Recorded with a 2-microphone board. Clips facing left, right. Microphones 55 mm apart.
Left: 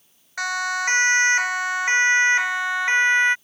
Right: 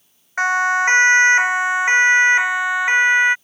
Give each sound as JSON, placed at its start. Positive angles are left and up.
{"t": 0.4, "sound": "a siren", "side_deg": -30}